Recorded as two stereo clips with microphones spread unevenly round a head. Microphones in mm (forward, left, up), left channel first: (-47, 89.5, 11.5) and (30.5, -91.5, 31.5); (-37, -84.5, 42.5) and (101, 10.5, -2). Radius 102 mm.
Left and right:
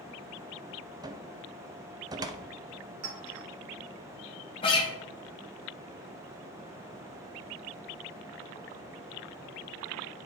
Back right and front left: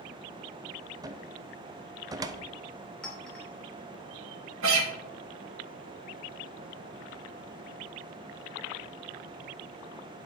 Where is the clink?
65° right, 2.5 m.